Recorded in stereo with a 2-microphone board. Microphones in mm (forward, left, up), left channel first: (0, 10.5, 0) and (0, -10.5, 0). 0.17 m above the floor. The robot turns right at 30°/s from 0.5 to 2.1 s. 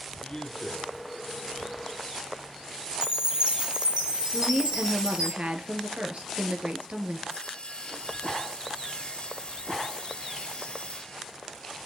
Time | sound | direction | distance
0.2 | a man speaking | 35° left (ahead or behind) | 3 m
3.0 | a chime | 50° right (ahead or behind) | 3 m
4.3 | a woman speaking | 65° right (ahead or behind) | 3 m
7.3 | sawing | 55° left (ahead or behind) | 2 m